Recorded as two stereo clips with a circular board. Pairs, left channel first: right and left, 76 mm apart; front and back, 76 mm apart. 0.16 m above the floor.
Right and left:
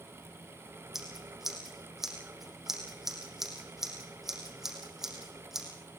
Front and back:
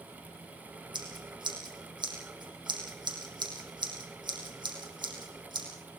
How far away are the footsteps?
I don't hear footsteps.